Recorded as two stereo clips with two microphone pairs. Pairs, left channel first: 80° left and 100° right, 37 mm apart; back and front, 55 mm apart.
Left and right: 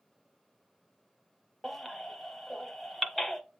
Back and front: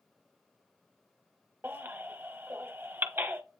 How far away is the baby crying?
About 0.6 m.